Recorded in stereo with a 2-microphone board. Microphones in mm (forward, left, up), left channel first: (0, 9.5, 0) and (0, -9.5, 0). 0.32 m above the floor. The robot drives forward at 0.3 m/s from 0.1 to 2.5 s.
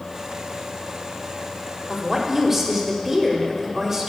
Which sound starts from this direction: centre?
A woman speaking, at 1.9 s.